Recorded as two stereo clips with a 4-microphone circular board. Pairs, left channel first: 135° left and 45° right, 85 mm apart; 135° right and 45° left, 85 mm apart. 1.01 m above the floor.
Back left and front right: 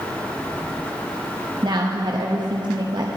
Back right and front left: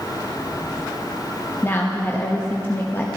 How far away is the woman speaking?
About 0.9 m.